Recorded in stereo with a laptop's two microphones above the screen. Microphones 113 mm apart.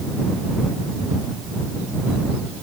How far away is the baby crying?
No baby crying in this recording.